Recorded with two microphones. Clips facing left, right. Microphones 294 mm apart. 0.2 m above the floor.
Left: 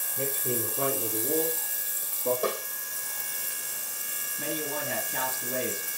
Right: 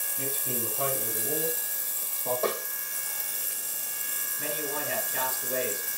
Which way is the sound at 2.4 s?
15° left (ahead or behind).